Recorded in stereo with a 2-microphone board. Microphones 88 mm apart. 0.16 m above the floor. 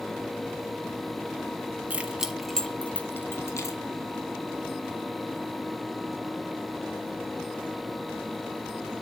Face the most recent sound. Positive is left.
turn(degrees=35)  # may be behind; listen again after turning